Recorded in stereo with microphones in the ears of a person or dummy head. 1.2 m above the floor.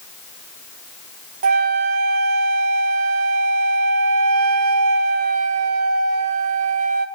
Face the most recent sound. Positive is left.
turn(degrees=-40)  # may be behind; listen again after turning